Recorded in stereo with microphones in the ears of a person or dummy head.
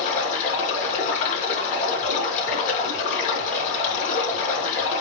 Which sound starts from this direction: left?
Running water, at 0.0 s.